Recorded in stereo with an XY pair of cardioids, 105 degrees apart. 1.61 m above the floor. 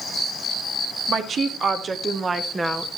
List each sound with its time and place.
1.1 s a woman speaking: 60° right, 2.0 m; by 2.9 s 10° right, 1.3 m